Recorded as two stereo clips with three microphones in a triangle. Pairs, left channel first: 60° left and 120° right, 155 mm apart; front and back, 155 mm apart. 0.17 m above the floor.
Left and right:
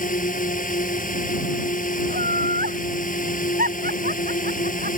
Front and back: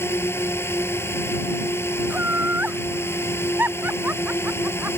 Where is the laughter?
100° right.